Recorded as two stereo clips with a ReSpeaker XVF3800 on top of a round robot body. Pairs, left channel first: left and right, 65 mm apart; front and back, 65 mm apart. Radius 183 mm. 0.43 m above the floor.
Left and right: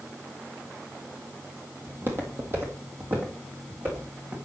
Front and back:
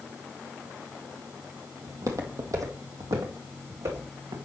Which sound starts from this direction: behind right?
Footsteps, at 1.9 s.